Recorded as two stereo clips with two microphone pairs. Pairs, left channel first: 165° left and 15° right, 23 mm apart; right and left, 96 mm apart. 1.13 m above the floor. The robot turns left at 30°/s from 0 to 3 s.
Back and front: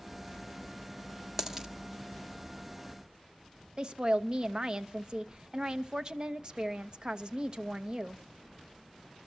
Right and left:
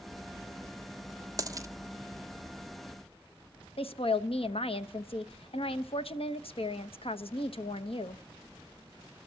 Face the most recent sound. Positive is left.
turn(degrees=-65)